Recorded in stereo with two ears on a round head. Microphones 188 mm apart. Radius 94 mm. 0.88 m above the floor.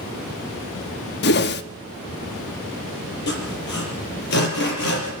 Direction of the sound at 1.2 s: 50° left (ahead or behind).